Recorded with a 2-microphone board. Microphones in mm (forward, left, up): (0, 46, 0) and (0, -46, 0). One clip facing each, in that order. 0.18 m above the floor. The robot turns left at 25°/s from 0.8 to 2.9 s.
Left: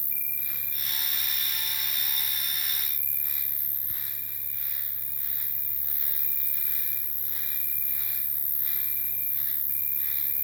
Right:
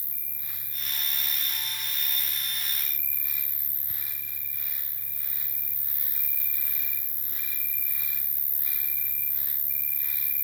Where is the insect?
70° left, 1.1 m; by 10.4 s 20° left, 1.1 m.